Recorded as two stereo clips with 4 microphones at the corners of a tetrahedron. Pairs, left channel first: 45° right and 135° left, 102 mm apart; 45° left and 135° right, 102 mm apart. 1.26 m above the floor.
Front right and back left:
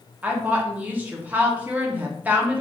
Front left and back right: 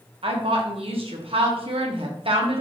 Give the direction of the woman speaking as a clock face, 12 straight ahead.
5 o'clock.